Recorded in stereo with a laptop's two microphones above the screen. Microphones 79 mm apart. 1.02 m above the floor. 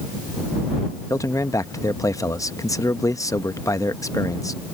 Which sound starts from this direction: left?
A man speaking, at 1.1 s.